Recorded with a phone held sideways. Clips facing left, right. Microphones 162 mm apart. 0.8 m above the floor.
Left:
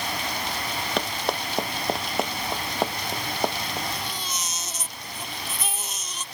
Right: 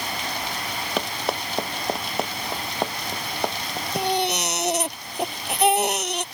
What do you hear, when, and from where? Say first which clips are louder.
1.0 s running footsteps: right 1 dB; 5° right (ahead or behind); by 3.9 s 5° left (ahead or behind)
4.0 s a baby crying: right 11 dB; 70° right (ahead or behind)